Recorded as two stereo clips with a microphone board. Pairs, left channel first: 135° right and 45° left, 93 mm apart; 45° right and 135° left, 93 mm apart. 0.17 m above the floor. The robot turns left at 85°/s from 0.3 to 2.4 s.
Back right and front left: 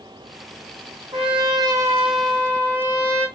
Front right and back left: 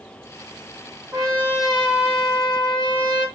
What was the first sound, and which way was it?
A trumpet, 50° left.